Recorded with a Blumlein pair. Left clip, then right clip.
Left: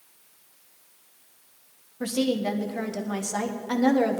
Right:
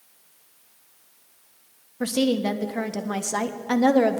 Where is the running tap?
I don't hear a running tap.